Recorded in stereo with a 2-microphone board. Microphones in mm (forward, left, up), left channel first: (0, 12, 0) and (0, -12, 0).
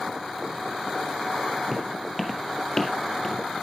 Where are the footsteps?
Centre (ahead or behind), 1.6 m; by 3.4 s 40° left (ahead or behind), 1.6 m.